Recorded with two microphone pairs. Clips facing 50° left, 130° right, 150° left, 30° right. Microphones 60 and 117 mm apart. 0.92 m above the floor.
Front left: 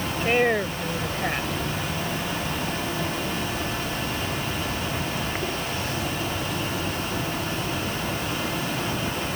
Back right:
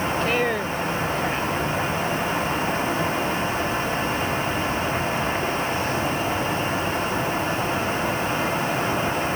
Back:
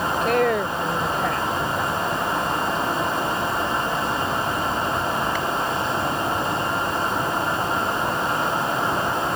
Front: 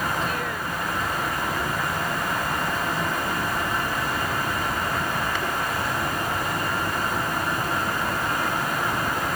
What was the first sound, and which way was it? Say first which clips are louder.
A woman speaking: front left 5 dB, back 9 dB; 125° left.